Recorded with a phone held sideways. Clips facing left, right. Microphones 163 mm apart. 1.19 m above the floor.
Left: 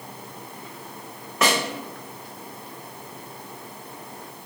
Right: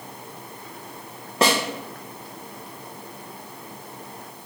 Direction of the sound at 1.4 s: 30° right (ahead or behind).